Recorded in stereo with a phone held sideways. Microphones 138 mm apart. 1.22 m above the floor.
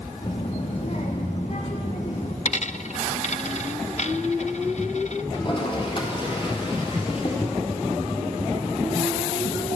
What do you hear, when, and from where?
0.2 s a child speaking: 55° left (ahead or behind), 1.7 m
2.5 s a dropped coin: 55° left (ahead or behind), 0.8 m
5.3 s a toilet flushing: 40° left (ahead or behind), 4.5 m